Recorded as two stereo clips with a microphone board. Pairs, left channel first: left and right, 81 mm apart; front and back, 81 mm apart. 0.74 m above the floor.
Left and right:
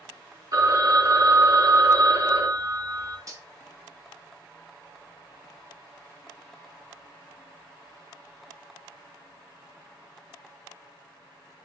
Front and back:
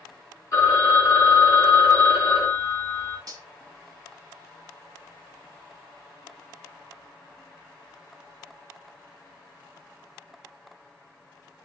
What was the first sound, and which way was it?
A phone ringing, 50° right.